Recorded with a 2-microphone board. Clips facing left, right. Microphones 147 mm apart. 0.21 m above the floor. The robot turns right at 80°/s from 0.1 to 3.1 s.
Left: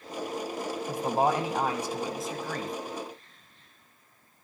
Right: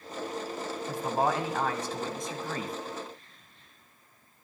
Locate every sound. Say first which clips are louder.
0.9 s a man speaking: left 2 dB; 20° left (ahead or behind), 1.0 m; by 2.8 s 10° right (ahead or behind), 1.0 m